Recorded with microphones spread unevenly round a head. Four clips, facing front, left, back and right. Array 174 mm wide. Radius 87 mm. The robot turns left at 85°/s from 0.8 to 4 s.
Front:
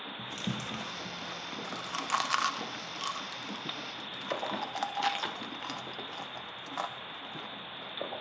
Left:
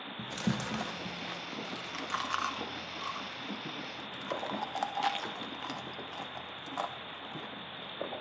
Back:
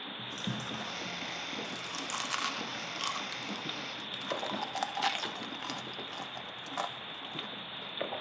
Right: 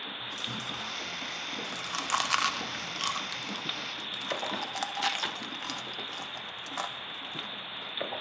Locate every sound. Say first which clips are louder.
0.2 s chewing: left 9 dB, front 2 dB; 70° left, 0.6 m; by 8.2 s 155° left, 0.6 m